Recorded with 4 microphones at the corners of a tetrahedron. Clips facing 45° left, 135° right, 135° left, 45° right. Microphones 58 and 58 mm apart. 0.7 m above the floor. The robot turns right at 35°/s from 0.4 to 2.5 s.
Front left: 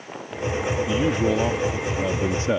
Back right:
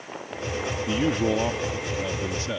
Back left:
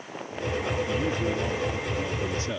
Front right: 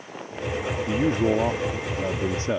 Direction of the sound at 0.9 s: 60° right.